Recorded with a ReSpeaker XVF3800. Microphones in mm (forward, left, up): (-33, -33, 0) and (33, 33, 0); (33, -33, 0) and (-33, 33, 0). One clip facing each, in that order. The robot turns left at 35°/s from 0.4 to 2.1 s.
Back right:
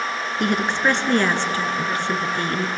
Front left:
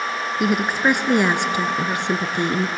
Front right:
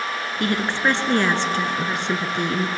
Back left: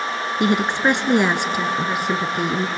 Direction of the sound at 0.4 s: 120° left.